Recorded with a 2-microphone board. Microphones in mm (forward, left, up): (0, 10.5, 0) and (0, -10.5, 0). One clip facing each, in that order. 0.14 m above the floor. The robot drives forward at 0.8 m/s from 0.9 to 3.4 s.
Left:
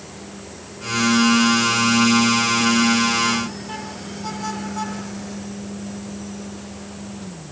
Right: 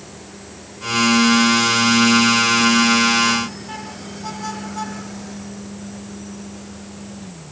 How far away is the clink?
No clink in this recording.